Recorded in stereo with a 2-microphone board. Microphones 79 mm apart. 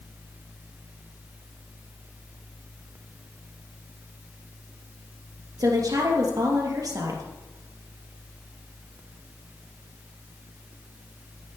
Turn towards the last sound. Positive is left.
turn(degrees=-55)  # may be behind; listen again after turning